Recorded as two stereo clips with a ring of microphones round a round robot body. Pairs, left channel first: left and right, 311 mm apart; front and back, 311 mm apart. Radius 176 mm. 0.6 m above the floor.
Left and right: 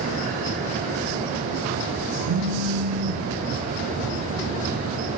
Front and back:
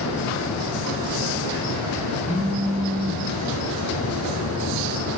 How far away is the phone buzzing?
About 1.2 m.